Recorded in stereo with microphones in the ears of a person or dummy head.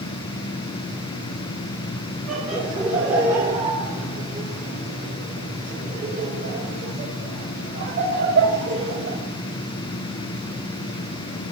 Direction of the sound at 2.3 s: Centre (ahead or behind).